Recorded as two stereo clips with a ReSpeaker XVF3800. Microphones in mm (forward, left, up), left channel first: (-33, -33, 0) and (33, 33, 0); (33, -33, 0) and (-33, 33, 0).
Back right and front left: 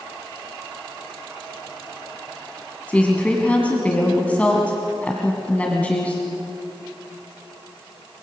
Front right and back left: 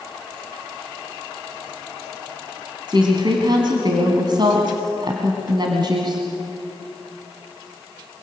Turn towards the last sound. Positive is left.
turn(degrees=150)